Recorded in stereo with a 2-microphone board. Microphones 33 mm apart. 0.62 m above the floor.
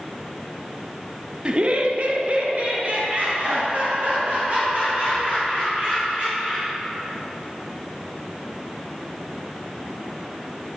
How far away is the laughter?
About 0.8 m.